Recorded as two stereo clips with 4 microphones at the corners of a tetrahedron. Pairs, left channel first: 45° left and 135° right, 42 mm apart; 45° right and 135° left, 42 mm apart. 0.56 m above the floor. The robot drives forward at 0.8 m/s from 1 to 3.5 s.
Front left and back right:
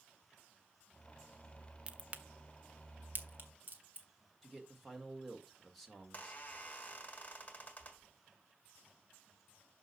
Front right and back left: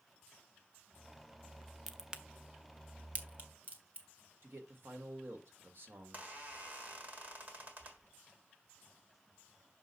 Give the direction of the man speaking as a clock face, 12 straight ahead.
8 o'clock.